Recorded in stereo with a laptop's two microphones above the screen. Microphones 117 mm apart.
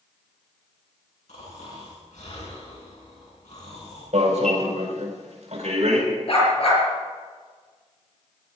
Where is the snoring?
90° left, 8 m.